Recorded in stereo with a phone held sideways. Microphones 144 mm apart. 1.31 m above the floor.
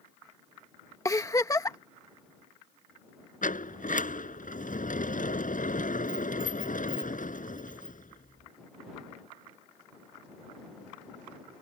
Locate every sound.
1.1 s a giggle: 25° left (ahead or behind)
3.4 s a sliding door: 70° left (ahead or behind)